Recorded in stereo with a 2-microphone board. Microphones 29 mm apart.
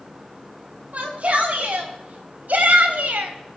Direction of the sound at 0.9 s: 60° right (ahead or behind).